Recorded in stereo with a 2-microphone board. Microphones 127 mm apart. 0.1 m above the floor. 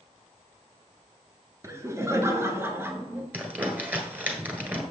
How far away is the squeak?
No squeak in this recording.